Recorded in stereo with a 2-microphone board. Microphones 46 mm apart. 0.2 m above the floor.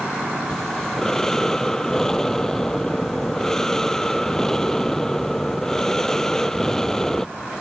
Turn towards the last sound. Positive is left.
turn(degrees=10)  # may be behind; listen again after turning